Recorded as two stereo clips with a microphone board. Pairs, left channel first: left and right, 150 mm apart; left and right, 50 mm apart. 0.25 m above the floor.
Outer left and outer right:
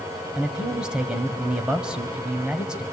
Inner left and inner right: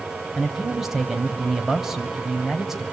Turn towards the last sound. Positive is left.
turn(degrees=-5)  # may be behind; listen again after turning